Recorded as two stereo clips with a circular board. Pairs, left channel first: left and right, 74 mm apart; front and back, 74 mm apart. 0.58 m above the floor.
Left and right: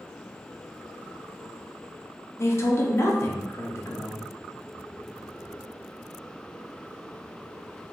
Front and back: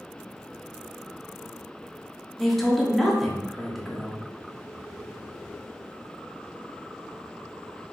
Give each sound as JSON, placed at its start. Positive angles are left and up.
{"t": 2.4, "sound": "a man speaking", "azimuth_deg": 85, "distance_m": 0.7}